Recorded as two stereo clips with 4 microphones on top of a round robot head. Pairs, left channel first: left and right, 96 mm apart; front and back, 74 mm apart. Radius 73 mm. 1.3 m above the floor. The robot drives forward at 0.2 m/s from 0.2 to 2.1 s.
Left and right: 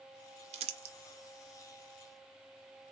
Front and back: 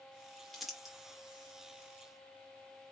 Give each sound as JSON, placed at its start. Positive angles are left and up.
{"t": 0.5, "sound": "crumpling", "azimuth_deg": -90, "distance_m": 0.5}